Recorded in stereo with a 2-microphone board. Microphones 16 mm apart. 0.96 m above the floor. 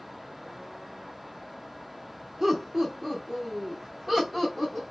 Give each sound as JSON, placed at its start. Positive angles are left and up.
{"t": 2.4, "sound": "laughter", "side_deg": -25, "distance_m": 0.6}